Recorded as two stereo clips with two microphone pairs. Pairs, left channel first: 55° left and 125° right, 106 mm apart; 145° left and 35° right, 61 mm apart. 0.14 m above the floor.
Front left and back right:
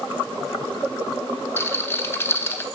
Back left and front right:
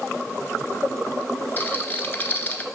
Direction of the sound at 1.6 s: 110° left.